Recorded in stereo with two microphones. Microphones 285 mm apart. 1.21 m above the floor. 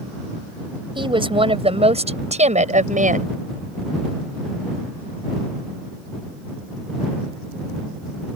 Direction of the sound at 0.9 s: 20° right (ahead or behind).